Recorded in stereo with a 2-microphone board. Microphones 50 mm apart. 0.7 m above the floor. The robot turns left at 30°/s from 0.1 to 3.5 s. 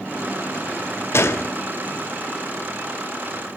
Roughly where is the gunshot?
Left.